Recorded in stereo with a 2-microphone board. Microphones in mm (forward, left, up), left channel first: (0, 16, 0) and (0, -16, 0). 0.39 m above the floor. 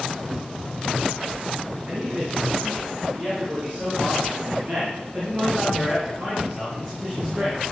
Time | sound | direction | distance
1.9 | a man speaking | 50° right (ahead or behind) | 5 m